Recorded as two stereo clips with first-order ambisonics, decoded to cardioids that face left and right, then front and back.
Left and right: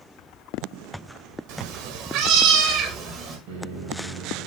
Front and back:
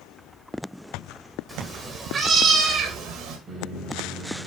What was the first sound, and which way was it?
A cat meowing, 100° right.